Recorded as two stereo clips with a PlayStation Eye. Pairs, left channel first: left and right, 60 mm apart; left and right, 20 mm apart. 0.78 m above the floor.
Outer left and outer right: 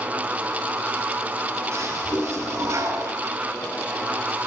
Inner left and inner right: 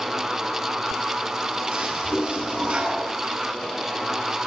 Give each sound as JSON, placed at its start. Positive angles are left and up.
{"t": 1.7, "sound": "a toilet flushing", "side_deg": -50, "distance_m": 8.0}